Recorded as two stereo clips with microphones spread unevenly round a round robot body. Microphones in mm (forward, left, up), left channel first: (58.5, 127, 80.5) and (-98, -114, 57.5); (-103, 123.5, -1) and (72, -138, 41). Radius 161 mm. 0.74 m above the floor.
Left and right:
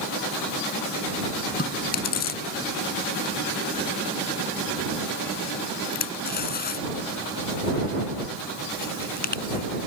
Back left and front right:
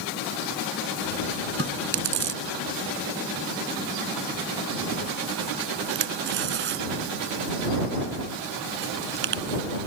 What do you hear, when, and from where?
1.6 s chewing: straight ahead